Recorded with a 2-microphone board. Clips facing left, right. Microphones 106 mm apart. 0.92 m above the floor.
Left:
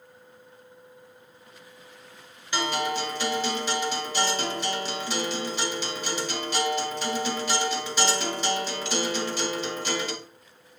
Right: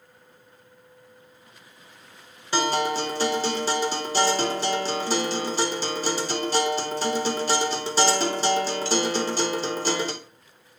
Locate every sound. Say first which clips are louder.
2.5 s a guitar: right 4 dB; 35° right (ahead or behind), 1.5 m